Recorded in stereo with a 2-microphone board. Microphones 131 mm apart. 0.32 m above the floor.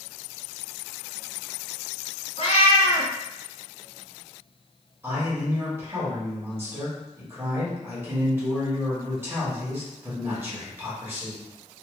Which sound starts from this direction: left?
A cat meowing, at 2.4 s.